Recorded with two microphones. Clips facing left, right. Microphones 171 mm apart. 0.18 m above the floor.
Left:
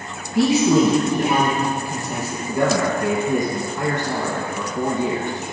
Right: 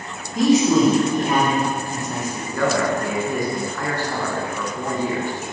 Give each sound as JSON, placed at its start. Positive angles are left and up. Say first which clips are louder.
{"t": 0.3, "sound": "a man speaking", "louder": "even", "side_deg": 10, "distance_m": 3.0}
{"t": 2.5, "sound": "a man speaking", "louder": "left 1 dB", "side_deg": 20, "distance_m": 1.4}